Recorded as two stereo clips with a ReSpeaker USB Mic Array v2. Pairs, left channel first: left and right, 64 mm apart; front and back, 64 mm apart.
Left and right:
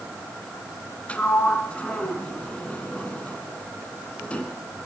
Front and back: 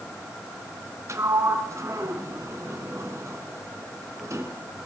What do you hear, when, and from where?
1.1 s a sliding door: 155° left, 1.7 m